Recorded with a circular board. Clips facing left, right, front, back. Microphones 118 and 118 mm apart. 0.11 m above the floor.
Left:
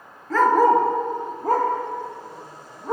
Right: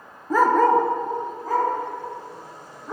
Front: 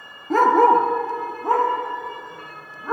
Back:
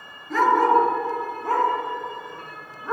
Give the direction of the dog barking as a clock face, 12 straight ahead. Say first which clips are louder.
Left 1 dB, front 3 dB; 1 o'clock.